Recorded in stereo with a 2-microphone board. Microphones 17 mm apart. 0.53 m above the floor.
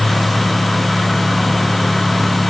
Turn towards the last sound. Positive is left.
No sound to turn to.